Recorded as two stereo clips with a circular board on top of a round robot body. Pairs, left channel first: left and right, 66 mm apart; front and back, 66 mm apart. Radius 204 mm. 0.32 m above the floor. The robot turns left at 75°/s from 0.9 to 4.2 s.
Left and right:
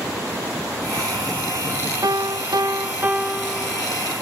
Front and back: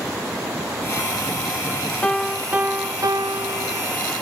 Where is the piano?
70° right, 1.4 m; by 3.8 s 150° left, 1.4 m.